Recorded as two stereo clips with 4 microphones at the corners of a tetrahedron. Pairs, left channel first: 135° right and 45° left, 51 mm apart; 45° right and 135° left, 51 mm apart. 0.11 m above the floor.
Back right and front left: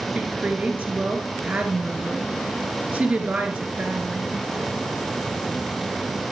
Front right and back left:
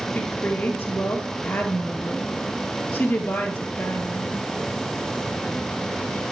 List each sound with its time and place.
0.1 s a woman speaking: 5° right, 1.6 m